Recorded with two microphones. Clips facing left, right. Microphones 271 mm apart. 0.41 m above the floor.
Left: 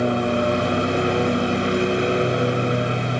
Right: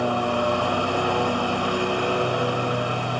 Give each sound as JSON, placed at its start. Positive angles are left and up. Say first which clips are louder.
{"t": 0.0, "sound": "a lawn mower", "louder": "left 4 dB", "side_deg": 20}